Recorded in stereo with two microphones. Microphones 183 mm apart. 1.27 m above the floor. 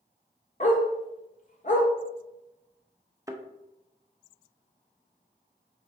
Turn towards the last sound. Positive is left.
turn(degrees=-20)  # may be behind; listen again after turning